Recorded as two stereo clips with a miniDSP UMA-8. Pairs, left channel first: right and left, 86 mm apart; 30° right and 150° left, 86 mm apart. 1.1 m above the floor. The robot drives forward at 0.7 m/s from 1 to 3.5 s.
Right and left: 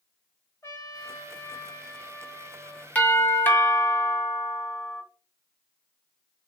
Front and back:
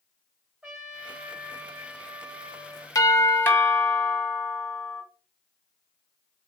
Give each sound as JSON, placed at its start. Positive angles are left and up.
{"t": 0.6, "sound": "a trumpet", "azimuth_deg": -130, "distance_m": 1.3}
{"t": 3.0, "sound": "a doorbell", "azimuth_deg": -30, "distance_m": 0.9}